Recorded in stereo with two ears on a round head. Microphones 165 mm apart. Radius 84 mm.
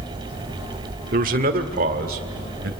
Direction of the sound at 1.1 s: 45° right (ahead or behind).